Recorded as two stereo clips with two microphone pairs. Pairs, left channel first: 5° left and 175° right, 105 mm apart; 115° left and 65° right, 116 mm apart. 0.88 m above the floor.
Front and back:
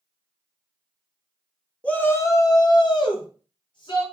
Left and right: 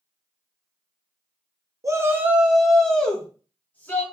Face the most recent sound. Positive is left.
turn(degrees=45)